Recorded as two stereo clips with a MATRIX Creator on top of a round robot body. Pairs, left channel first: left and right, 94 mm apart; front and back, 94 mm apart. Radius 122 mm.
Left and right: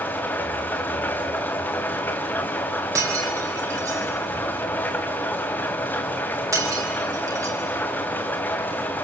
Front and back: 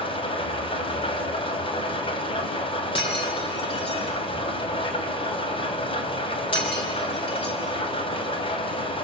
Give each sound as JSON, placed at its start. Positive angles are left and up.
{"t": 0.0, "sound": "an engine running", "azimuth_deg": 20, "distance_m": 2.5}
{"t": 3.0, "sound": "breaking glass", "azimuth_deg": -35, "distance_m": 3.0}